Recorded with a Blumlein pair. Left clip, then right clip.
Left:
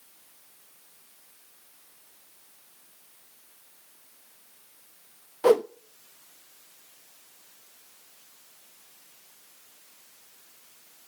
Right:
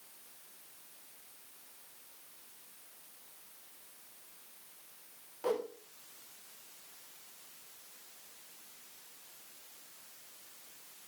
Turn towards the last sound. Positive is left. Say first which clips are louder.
# left 14 dB
turn(degrees=55)